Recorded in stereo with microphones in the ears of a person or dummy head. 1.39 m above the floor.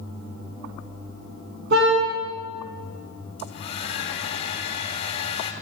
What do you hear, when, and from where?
1.7 s a car horn: 60° right (ahead or behind), 8 m
3.4 s a hair dryer: 35° left (ahead or behind), 2.5 m